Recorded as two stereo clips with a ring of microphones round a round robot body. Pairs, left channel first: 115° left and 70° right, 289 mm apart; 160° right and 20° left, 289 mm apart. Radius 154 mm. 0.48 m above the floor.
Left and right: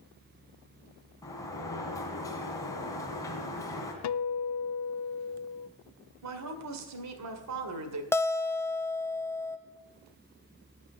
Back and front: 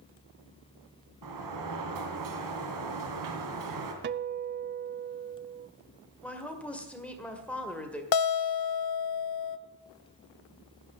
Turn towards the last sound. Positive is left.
turn(degrees=-165)